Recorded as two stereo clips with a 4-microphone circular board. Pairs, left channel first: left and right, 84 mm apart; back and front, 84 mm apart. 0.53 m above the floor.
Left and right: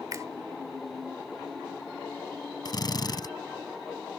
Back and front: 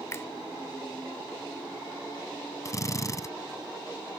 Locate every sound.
0.1 s a finger snap: 130° right
2.6 s a drill: 130° left